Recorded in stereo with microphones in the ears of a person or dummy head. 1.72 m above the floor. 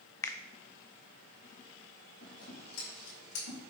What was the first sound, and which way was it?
A finger snap, 15° left (ahead or behind).